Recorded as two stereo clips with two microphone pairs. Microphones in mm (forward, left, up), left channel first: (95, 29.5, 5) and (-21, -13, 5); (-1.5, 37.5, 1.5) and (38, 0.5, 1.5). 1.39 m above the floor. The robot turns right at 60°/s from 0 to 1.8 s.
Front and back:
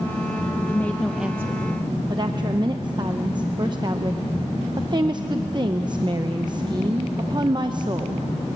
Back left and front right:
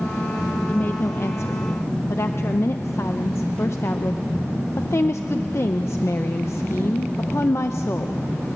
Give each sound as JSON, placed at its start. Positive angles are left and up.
{"t": 0.7, "sound": "a woman speaking", "azimuth_deg": 85, "distance_m": 0.7}